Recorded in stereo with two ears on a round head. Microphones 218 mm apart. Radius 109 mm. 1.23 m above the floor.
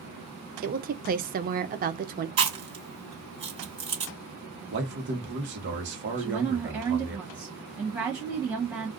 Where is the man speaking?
50° right (ahead or behind), 1.1 m.